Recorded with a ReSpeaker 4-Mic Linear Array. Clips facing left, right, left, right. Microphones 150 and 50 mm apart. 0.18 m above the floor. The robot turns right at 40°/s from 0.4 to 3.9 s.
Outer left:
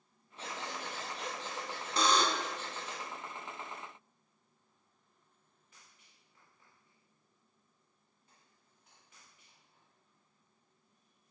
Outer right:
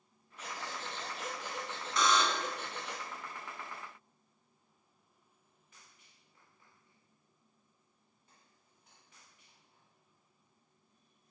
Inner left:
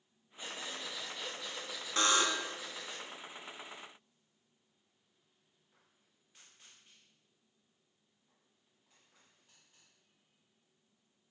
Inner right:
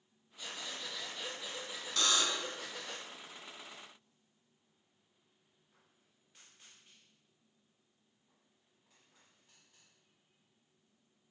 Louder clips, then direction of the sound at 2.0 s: Even, inner left 3 dB; 35° left (ahead or behind).